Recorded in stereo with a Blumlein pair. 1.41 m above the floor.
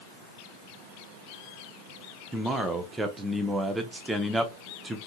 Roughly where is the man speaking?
Ahead.